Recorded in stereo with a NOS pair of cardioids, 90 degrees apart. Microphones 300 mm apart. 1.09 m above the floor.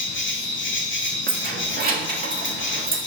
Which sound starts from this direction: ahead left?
An insect, at 0.0 s.